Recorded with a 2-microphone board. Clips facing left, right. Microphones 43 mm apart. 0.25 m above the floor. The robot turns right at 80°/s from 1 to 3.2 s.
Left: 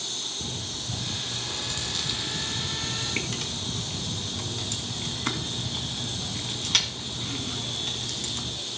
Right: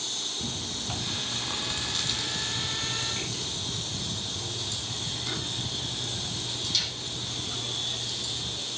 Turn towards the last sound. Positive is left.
turn(degrees=60)  # may be behind; listen again after turning